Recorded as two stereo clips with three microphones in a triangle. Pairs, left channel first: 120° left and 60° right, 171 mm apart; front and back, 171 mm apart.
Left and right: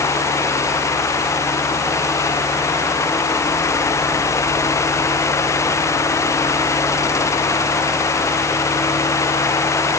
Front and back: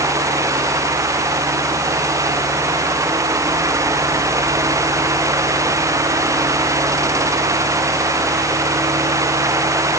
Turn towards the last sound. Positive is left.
No sound to turn to.